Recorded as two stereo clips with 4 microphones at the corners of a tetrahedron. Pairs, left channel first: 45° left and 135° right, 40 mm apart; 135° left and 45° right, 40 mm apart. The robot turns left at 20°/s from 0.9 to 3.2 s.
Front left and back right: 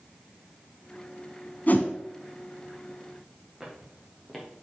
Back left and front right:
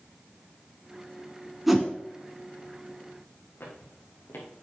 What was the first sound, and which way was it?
A whoosh, 40° left.